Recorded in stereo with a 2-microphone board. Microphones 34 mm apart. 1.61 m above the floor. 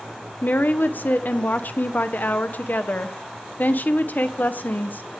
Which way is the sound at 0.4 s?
55° left (ahead or behind).